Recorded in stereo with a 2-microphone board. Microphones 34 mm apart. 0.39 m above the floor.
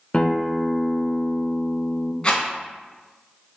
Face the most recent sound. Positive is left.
turn(degrees=25)  # may be behind; listen again after turning